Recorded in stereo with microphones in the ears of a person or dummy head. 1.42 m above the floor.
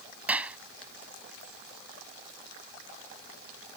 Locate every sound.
0.3 s a clap: 5° right (ahead or behind)